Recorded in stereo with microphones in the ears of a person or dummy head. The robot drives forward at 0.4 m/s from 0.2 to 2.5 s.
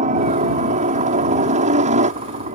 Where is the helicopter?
40° right (ahead or behind).